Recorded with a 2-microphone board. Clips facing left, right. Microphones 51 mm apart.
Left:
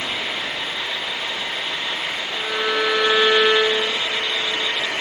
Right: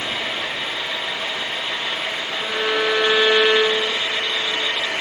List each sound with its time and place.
0.0 s an engine running: 30° right (ahead or behind), 9.5 m
2.3 s a violin: 25° right (ahead or behind), 4 m